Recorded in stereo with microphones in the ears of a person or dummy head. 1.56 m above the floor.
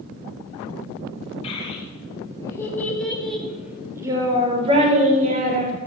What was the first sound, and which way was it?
A child speaking, 35° left (ahead or behind).